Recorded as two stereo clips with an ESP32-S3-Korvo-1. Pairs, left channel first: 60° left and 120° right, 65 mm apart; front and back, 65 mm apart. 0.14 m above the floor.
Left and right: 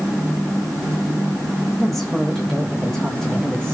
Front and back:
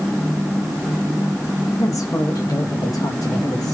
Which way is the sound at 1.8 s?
25° right.